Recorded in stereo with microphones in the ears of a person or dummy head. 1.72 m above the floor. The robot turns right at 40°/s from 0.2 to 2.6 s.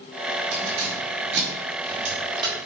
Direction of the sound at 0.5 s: 75° right (ahead or behind).